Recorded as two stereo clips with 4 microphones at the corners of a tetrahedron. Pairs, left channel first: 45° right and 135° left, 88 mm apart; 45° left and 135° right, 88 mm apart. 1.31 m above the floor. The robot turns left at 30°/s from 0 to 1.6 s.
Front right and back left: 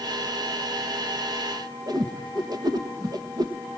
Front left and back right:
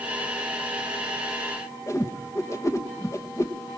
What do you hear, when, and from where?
1.9 s a whoosh: 95° left, 1.1 m